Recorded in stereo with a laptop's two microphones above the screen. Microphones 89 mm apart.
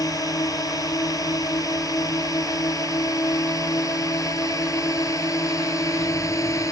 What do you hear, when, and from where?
0.0 s a drone: 45° left (ahead or behind); by 6.7 s 40° left (ahead or behind)